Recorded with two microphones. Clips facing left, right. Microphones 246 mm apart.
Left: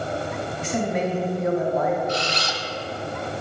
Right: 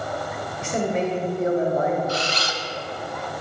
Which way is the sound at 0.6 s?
30° right (ahead or behind).